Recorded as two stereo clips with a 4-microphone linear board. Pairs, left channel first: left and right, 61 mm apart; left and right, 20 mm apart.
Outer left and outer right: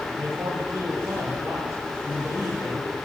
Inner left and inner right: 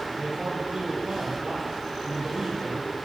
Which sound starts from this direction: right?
A man speaking, at 0.1 s.